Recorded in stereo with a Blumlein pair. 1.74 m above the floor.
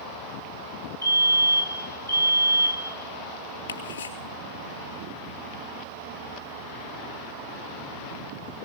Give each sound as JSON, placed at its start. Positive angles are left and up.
{"t": 1.0, "sound": "a fire alarm", "azimuth_deg": 70, "distance_m": 2.0}
{"t": 3.7, "sound": "ticking", "azimuth_deg": 70, "distance_m": 3.5}